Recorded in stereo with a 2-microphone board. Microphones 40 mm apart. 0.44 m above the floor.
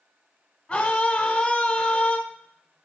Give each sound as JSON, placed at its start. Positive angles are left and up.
{"t": 0.7, "sound": "a scream", "side_deg": 20, "distance_m": 1.2}